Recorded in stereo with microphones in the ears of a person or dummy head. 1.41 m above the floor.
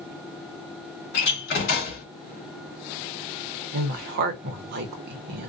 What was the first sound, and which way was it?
A door slam, 60° left (ahead or behind).